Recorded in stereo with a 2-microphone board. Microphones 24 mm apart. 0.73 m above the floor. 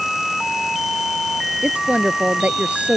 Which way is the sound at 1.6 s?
85° right.